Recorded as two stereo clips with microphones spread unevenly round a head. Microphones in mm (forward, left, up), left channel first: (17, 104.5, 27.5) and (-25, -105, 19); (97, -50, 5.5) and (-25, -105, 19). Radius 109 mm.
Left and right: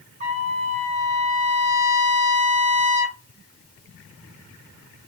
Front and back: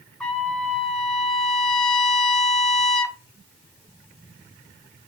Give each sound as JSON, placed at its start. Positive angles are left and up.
{"t": 0.2, "sound": "a trumpet", "azimuth_deg": -55, "distance_m": 0.6}